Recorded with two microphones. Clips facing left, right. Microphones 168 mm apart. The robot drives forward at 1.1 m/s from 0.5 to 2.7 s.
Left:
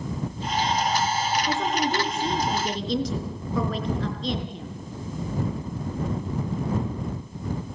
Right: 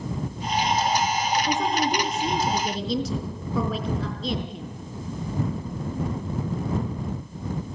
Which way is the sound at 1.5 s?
5° right (ahead or behind).